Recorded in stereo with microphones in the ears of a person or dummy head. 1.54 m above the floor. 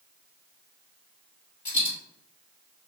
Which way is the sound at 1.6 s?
40° left (ahead or behind).